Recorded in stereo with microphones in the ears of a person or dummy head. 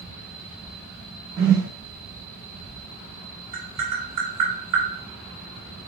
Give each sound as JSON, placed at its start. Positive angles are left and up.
{"t": 1.4, "sound": "a whoosh", "side_deg": -30, "distance_m": 1.0}
{"t": 3.5, "sound": "tapping", "side_deg": -40, "distance_m": 1.3}